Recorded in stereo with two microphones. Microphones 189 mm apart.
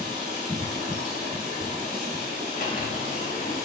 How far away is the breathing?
I don't hear breathing.